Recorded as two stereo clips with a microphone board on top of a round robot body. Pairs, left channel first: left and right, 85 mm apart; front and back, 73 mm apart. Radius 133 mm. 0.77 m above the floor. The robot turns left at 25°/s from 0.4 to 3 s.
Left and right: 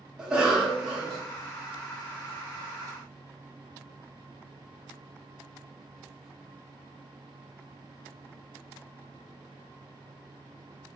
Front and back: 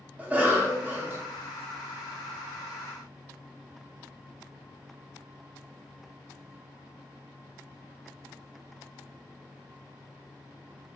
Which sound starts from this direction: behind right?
A cough, at 0.2 s.